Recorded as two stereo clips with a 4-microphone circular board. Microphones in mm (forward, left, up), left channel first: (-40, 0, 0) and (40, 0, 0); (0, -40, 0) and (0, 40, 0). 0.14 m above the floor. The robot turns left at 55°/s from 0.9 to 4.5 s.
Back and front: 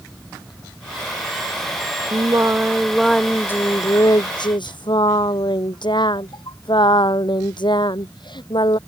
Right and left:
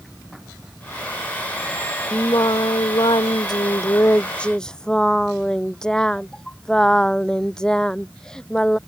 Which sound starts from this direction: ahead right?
Singing, at 2.1 s.